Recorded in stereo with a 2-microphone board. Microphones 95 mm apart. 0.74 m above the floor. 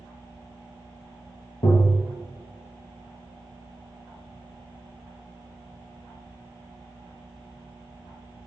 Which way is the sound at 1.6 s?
60° left (ahead or behind).